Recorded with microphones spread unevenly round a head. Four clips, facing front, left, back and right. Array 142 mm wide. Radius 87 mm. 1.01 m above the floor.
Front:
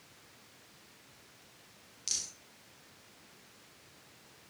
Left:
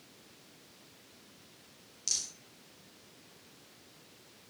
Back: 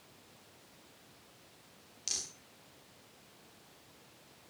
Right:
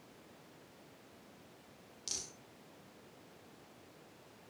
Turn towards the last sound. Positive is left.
turn(degrees=-130)